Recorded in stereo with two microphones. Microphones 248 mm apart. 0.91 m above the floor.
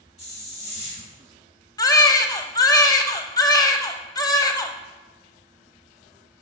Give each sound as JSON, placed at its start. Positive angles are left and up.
{"t": 0.2, "sound": "a hiss", "side_deg": 25, "distance_m": 1.7}
{"t": 1.8, "sound": "a baby crying", "side_deg": 15, "distance_m": 0.6}